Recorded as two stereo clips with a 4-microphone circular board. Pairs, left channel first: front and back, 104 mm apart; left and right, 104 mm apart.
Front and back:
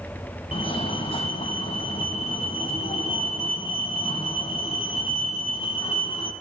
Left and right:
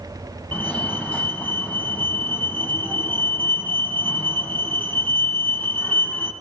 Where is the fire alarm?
15° left, 3.5 m.